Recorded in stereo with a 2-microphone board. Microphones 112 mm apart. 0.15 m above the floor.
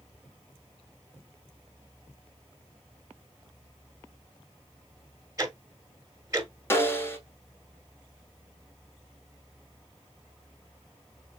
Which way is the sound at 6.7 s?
20° left (ahead or behind).